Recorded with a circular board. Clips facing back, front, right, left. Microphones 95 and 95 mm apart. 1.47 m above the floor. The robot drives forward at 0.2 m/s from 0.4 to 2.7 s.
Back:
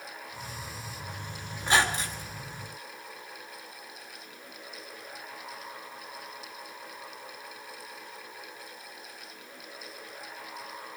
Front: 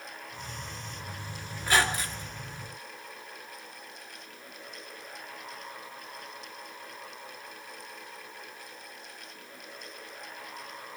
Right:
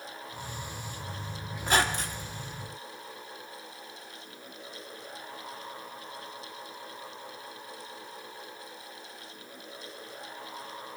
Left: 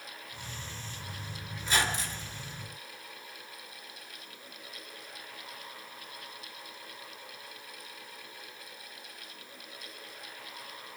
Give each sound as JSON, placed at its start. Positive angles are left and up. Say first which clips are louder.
{"t": 1.6, "sound": "a squeak", "louder": "back 1 dB, right 4 dB", "azimuth_deg": -115, "distance_m": 1.8}